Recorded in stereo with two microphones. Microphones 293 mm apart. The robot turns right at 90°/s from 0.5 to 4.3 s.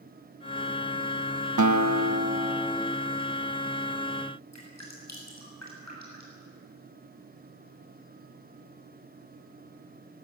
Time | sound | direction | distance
1.6 | a guitar | 90° right | 1.1 m
4.5 | dripping | 65° left (ahead or behind) | 7 m